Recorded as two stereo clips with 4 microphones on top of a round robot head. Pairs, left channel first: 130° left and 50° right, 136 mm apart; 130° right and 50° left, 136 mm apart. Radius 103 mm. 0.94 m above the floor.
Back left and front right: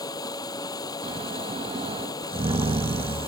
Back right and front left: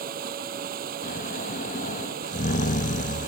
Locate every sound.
0.0 s running water: 70° left
1.0 s snoring: 100° right